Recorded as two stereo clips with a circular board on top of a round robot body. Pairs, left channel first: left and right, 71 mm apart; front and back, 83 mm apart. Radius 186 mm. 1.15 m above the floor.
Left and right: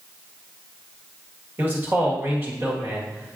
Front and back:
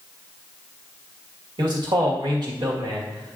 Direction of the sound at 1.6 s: 150° right.